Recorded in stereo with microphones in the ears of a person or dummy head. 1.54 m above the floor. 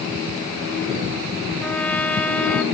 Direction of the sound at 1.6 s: 10° left (ahead or behind).